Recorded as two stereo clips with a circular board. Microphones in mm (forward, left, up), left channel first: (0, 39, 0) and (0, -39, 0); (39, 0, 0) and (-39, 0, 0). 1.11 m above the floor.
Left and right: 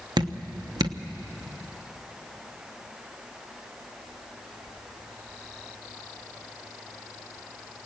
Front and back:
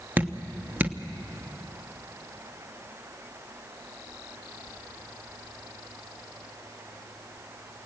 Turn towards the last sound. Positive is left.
turn(degrees=-110)